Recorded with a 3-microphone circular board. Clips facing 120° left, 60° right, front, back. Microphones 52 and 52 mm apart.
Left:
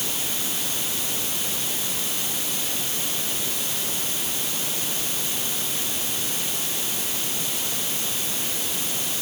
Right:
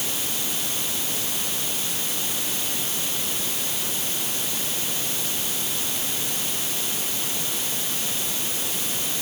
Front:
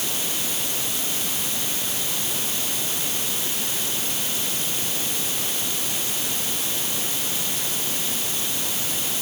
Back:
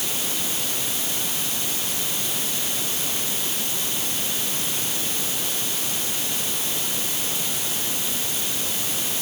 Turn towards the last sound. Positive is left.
No sound to turn to.